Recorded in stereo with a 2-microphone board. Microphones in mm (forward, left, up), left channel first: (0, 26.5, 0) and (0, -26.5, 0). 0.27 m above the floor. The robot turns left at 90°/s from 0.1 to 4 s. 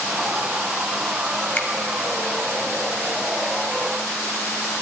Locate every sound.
1.6 s a finger snap: 35° left (ahead or behind), 1.6 m; by 1.7 s 25° left (ahead or behind), 1.6 m